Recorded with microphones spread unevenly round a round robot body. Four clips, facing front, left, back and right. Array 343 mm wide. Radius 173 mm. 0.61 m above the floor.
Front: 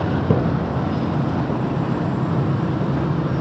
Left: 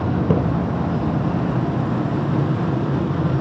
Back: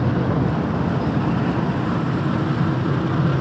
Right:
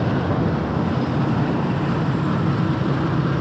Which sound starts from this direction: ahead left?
A splash, at 0.3 s.